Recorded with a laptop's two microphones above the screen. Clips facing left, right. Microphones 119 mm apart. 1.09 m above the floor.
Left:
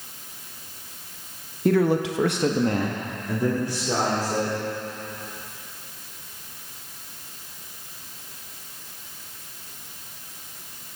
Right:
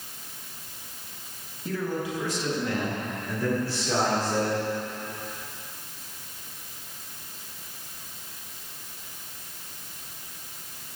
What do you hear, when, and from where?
1.6 s a man speaking: 60° left (ahead or behind), 1.0 m; by 4.6 s 10° left (ahead or behind), 3.5 m